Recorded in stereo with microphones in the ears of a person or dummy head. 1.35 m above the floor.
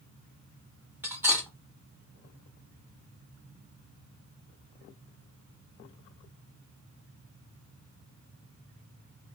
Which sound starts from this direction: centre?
Cutlery clinking, at 1.0 s.